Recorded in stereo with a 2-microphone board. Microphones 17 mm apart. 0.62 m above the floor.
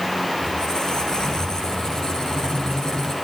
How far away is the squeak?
About 8.5 m.